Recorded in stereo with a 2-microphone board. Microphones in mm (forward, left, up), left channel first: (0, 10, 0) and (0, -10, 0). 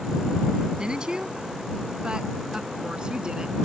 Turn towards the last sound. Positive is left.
turn(degrees=-45)  # may be behind; listen again after turning